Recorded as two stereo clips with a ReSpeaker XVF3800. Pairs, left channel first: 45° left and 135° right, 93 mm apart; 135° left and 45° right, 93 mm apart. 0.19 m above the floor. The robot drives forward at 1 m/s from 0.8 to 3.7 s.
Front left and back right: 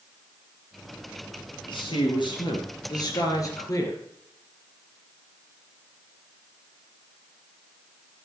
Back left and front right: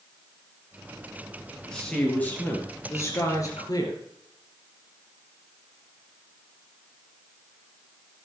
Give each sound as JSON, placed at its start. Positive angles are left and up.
{"t": 1.6, "sound": "a man speaking", "azimuth_deg": 55, "distance_m": 3.5}